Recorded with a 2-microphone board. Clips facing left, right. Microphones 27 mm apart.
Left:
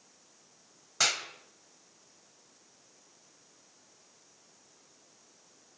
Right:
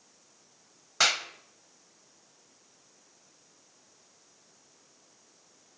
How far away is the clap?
About 1.3 m.